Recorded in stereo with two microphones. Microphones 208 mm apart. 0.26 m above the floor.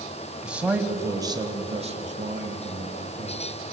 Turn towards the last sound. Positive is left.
turn(degrees=-50)  # may be behind; listen again after turning